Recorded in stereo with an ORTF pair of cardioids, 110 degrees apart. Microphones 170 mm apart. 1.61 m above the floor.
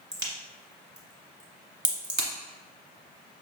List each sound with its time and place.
0.1 s a crack: 20° right, 1.2 m